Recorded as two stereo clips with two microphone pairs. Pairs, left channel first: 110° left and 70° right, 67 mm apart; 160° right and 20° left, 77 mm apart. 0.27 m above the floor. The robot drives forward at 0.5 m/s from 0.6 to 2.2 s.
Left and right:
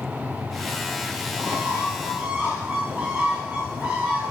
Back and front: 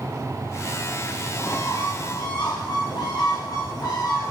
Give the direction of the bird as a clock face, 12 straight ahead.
4 o'clock.